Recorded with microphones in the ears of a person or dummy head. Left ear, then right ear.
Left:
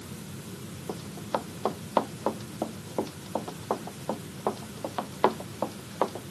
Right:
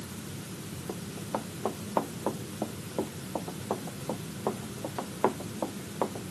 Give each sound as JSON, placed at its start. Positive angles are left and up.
{"t": 0.9, "sound": "running footsteps", "side_deg": 75}